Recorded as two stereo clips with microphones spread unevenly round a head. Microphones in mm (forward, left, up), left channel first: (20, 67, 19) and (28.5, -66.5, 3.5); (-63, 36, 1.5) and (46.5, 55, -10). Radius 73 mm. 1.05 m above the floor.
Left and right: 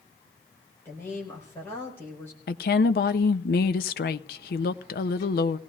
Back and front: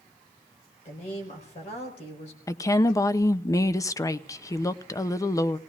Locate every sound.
0.8 s a woman speaking: 170° left, 4.5 m
2.5 s a woman speaking: 125° left, 0.6 m